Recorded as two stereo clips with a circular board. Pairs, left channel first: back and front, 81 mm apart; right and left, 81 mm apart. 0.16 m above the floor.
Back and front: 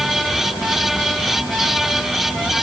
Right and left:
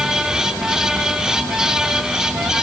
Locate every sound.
Only background noise.